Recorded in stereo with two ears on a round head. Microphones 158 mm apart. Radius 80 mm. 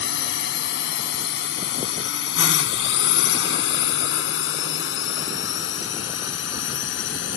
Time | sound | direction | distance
0.0 | a drone | 70° left (ahead or behind) | ?